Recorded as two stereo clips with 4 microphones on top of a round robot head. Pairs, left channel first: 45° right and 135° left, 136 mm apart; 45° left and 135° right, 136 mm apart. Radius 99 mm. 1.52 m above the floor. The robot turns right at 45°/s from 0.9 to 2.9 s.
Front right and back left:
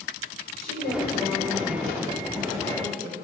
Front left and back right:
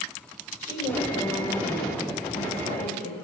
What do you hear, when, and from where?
0.6 s a woman speaking: 30° right, 7 m; by 3.1 s 60° left, 7 m